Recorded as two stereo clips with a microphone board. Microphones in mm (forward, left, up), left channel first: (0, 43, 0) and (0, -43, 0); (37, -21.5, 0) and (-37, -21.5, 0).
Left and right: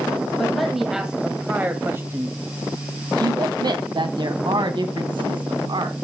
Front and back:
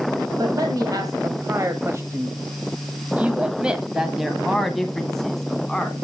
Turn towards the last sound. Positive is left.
turn(degrees=-85)